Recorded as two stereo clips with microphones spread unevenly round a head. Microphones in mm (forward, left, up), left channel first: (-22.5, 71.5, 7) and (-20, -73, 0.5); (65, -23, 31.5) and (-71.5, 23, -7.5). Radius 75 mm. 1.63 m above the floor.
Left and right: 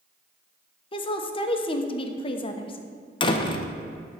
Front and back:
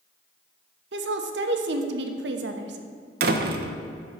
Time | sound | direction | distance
0.9 | a woman speaking | 145° left | 1.0 m
3.2 | a door slam | 135° left | 0.8 m